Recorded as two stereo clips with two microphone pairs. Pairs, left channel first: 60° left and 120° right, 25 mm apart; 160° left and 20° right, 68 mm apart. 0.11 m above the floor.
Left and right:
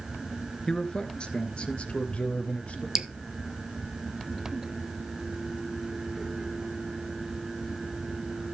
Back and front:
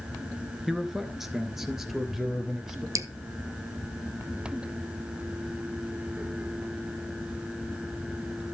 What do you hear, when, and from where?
0.7 s a man speaking: 65° left, 1.3 m
3.0 s dripping: 55° right, 0.8 m